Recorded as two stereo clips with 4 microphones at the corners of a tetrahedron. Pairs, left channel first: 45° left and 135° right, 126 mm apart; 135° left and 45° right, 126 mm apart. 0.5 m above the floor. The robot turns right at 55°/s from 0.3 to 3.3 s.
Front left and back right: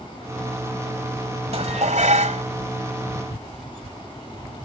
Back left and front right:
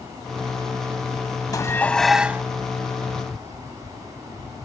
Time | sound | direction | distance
1.5 | dishes clattering | 165° right | ?